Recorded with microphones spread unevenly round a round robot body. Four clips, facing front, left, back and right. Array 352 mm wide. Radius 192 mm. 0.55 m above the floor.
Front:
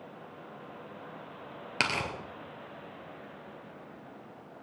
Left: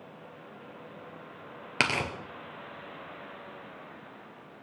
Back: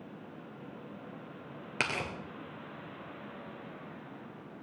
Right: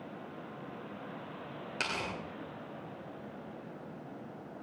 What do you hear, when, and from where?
1.8 s tearing paper: 75° left, 3 m